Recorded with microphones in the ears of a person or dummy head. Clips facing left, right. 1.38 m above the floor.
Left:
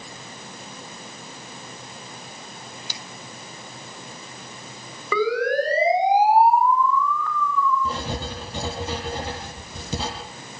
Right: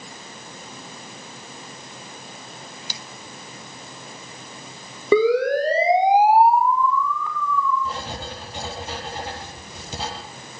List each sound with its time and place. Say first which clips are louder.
5.1 s a siren: right 5 dB; 25° right (ahead or behind), 6 m; by 7.8 s 15° right (ahead or behind), 7 m
7.8 s writing: left 2 dB; 70° left (ahead or behind), 6.5 m